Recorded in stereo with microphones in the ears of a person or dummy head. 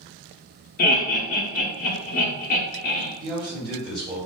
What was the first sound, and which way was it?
Laughter, 45° left (ahead or behind).